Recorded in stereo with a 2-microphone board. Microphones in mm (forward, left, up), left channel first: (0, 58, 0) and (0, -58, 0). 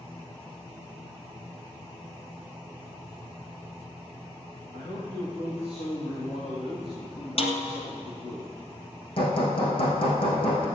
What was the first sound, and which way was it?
A man speaking, 55° left (ahead or behind).